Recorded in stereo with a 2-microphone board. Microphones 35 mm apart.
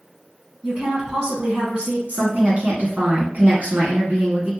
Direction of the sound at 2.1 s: 45° right (ahead or behind).